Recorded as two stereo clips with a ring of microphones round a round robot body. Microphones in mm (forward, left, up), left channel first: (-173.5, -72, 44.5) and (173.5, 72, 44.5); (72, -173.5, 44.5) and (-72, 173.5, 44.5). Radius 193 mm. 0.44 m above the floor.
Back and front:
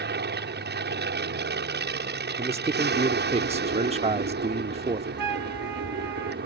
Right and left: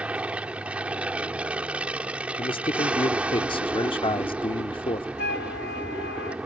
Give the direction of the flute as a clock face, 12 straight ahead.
12 o'clock.